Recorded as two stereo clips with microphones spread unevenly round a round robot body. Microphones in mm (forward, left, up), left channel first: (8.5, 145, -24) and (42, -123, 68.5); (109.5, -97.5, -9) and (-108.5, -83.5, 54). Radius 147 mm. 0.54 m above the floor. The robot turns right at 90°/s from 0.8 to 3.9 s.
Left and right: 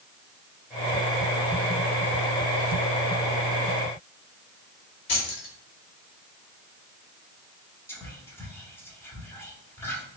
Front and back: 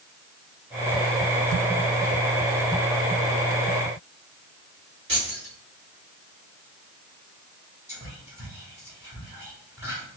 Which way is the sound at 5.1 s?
120° left.